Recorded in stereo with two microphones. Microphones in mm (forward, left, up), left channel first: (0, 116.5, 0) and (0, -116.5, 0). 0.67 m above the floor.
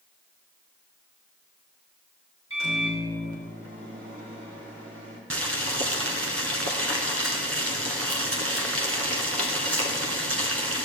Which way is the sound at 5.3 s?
75° right (ahead or behind).